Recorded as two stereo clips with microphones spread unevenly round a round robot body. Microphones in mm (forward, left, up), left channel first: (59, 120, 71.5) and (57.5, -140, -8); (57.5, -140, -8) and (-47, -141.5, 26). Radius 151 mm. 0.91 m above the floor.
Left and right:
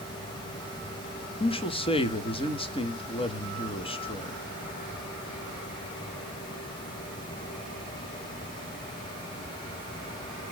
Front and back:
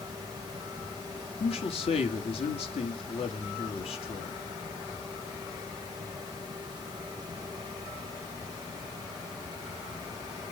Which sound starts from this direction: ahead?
A man speaking, at 1.4 s.